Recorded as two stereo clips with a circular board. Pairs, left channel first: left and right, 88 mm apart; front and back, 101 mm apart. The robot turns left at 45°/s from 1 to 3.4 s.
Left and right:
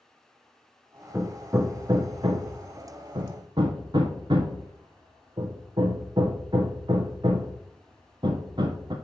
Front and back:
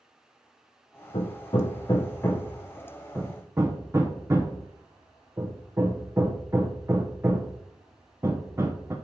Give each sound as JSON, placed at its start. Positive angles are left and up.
{"t": 1.1, "sound": "hammering", "azimuth_deg": -20, "distance_m": 1.5}